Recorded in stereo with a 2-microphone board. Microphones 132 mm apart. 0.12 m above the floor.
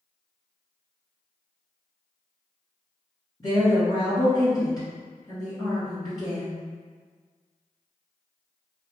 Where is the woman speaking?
30° left (ahead or behind), 1.3 m.